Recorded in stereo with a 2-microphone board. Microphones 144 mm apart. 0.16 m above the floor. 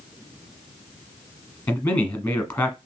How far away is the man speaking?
About 1.2 m.